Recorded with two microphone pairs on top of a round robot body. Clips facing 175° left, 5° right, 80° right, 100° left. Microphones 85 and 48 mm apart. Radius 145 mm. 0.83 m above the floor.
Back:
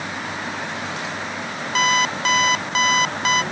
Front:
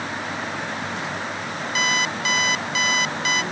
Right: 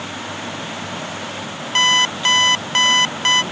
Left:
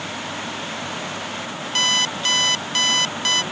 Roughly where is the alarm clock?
Behind right.